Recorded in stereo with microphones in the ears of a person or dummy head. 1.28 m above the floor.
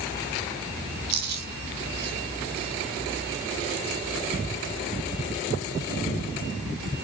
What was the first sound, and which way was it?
Chewing, 50° right (ahead or behind).